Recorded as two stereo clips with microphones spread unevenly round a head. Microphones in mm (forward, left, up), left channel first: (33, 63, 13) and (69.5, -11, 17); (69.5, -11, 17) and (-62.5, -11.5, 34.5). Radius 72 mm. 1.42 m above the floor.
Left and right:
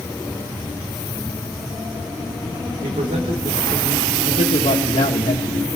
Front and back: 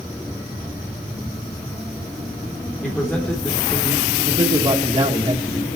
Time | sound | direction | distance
2.8 | a man speaking | 85° right | 4 m
4.2 | a man speaking | 115° left | 1.7 m